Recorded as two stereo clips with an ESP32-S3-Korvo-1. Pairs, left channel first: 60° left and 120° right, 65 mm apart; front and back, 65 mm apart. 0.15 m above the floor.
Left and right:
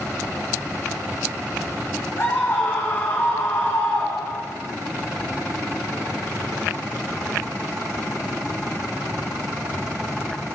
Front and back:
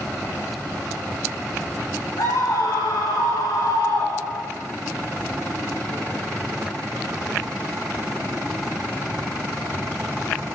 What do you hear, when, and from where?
2.2 s a scream: 5° left, 7.5 m